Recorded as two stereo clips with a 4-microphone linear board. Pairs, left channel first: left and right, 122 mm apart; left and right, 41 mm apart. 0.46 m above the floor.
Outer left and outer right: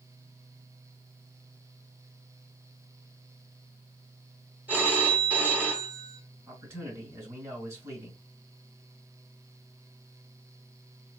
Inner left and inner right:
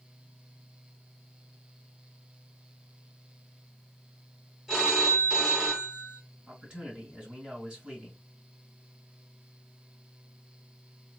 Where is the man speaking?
25° right (ahead or behind), 2.5 m.